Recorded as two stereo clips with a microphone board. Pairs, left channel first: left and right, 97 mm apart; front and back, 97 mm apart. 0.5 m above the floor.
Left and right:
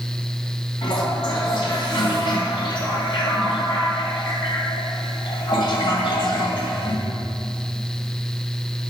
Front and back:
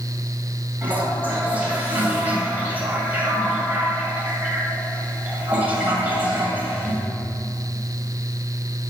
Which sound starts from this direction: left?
A toilet flushing, at 0.8 s.